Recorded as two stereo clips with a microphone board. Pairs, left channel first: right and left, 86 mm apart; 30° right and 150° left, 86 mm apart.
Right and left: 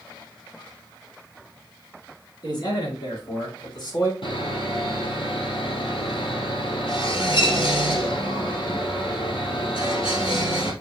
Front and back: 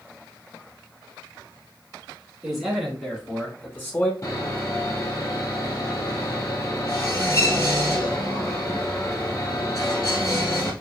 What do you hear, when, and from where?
2.4 s a man speaking: 125° right, 3.5 m; by 4.1 s 80° right, 2.0 m
4.2 s sawing: 85° right, 2.5 m